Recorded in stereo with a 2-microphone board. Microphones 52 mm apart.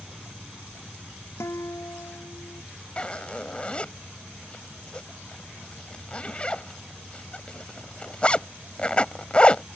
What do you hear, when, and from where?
1.4 s a guitar: 65° left (ahead or behind)
3.0 s a zipper: 20° left (ahead or behind)